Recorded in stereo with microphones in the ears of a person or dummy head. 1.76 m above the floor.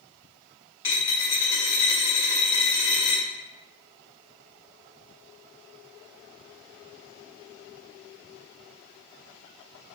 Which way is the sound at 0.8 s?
15° left (ahead or behind).